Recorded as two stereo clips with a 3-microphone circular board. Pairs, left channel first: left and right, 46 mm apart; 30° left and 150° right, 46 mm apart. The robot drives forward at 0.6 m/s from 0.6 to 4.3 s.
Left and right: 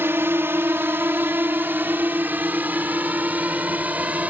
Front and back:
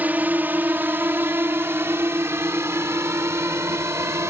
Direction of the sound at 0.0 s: 105° right.